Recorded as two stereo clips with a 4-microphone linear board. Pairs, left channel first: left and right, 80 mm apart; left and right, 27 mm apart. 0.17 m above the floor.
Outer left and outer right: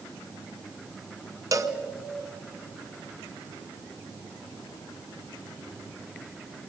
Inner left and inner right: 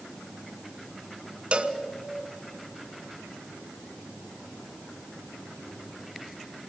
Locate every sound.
1.5 s a cowbell: 45° right (ahead or behind), 0.9 m